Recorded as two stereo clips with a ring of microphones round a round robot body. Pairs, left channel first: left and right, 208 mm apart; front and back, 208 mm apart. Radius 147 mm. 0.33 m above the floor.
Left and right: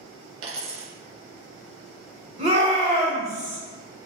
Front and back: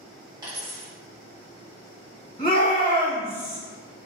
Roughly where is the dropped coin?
Right.